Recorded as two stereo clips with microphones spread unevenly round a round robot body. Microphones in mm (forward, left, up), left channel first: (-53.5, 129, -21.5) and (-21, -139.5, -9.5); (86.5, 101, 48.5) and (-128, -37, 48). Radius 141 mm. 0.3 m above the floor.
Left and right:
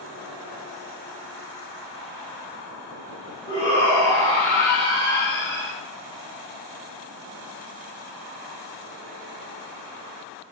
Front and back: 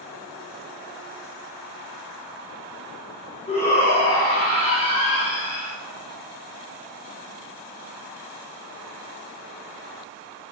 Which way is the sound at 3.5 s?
85° left.